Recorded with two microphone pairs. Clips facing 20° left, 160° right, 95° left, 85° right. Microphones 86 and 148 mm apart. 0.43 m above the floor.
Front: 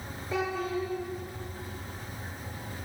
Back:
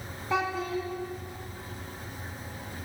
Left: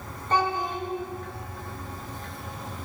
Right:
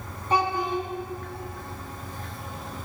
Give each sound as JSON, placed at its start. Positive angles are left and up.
{"t": 0.3, "sound": "a child speaking", "azimuth_deg": -165, "distance_m": 2.5}